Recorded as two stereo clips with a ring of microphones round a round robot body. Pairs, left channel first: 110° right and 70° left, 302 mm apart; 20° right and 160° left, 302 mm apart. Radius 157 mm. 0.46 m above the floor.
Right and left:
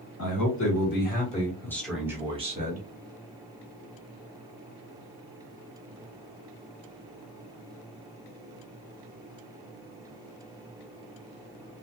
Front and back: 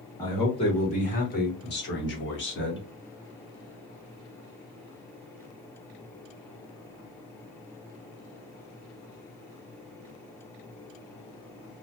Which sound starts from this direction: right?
A man speaking, at 0.2 s.